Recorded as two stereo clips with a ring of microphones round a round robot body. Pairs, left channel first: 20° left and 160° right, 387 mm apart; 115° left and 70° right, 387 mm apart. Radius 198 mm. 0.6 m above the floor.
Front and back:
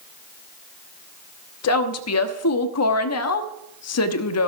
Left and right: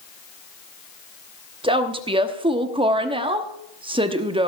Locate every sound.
1.6 s a woman speaking: 5° left, 1.1 m